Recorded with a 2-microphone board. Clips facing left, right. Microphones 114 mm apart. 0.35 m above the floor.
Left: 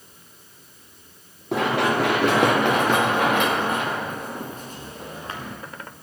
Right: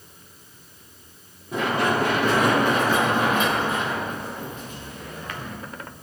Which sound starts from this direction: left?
Running footsteps, at 1.5 s.